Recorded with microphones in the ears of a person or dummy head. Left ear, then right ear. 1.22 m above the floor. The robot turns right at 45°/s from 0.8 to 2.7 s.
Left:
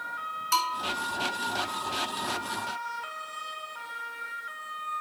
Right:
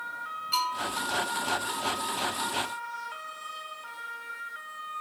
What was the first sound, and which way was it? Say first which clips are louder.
A bell: left 2 dB; 40° left (ahead or behind).